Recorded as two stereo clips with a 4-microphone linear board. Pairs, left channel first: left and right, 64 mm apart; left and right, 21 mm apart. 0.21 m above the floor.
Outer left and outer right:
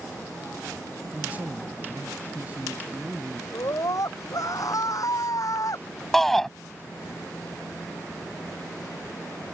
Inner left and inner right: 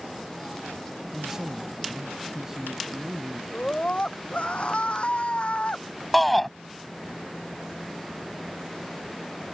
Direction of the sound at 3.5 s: 60° left (ahead or behind).